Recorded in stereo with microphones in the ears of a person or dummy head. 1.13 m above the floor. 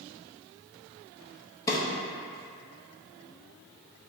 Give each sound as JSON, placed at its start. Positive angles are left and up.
{"t": 1.7, "sound": "a drawer", "side_deg": 15, "distance_m": 0.6}